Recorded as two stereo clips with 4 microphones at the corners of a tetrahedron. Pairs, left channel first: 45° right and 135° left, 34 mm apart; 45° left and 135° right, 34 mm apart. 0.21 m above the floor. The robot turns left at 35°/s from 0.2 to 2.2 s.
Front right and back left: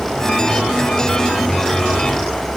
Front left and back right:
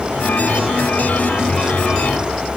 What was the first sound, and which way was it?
Only background noise.